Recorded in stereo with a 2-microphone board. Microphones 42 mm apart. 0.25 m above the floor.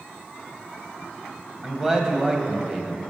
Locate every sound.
1.6 s a man speaking: 15° right (ahead or behind), 1.5 m